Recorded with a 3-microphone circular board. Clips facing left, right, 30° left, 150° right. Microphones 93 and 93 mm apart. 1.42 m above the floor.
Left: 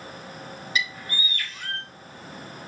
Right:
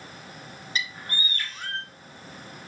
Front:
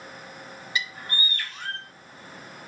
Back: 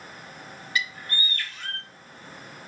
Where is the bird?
35° right, 3.5 m.